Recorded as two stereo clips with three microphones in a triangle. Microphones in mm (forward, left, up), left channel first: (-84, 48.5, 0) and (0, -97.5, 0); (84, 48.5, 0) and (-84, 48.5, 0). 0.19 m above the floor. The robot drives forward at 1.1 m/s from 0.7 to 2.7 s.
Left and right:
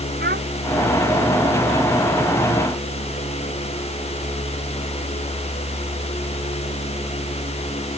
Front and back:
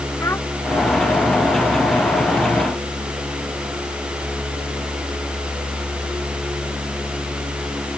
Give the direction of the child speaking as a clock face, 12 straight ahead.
3 o'clock.